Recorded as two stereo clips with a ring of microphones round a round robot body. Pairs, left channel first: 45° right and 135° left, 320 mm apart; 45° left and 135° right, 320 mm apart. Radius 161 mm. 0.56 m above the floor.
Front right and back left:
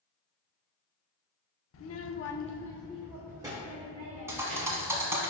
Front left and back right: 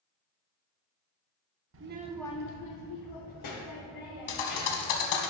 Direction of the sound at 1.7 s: 90° right.